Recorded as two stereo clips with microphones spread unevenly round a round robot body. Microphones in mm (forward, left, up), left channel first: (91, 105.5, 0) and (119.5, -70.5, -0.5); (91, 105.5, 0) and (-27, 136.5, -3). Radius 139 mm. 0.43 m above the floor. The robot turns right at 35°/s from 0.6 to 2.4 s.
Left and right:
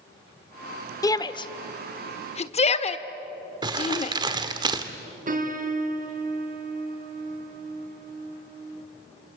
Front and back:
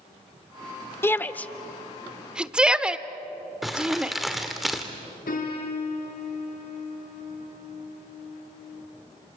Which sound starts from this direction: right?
Crumpling, at 3.6 s.